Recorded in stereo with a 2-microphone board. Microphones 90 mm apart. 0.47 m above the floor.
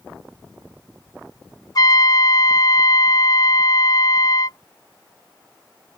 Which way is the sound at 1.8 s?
50° left (ahead or behind).